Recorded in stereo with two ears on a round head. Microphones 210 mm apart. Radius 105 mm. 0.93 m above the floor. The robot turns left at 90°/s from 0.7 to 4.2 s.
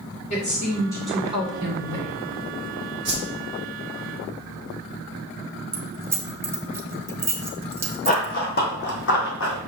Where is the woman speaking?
35° left, 3 m; by 2.1 s 95° right, 3 m.